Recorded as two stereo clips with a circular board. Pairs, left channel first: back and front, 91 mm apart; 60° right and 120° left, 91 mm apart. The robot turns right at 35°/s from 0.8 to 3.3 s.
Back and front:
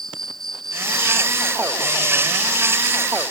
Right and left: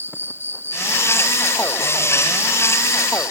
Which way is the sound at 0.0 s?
100° left.